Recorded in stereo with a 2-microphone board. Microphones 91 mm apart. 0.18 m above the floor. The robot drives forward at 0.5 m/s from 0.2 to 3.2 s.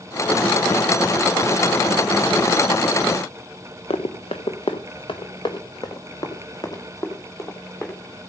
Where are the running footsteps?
80° left, 1.1 m; by 8.0 s 30° left (ahead or behind), 3 m.